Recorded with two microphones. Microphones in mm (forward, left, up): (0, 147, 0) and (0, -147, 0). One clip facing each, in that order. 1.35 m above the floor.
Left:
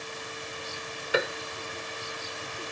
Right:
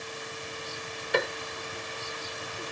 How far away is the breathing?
No breathing in this recording.